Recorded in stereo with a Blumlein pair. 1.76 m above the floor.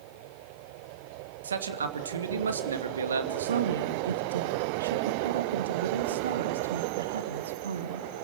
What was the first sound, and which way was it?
A man speaking, 70° right.